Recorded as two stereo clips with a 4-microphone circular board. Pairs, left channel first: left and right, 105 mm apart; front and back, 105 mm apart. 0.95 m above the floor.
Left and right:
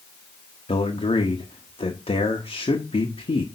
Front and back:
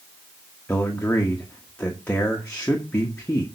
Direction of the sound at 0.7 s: 75° left.